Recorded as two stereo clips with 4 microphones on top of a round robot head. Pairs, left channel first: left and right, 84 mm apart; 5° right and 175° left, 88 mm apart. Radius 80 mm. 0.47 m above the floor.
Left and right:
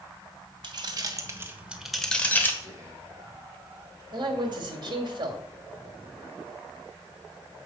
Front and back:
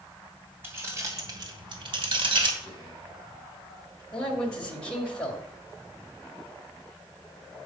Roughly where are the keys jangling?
Behind right.